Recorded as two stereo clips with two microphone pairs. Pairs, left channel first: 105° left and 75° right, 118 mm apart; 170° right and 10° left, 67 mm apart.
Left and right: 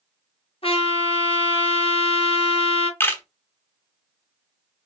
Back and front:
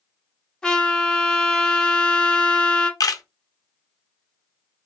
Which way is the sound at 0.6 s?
110° left.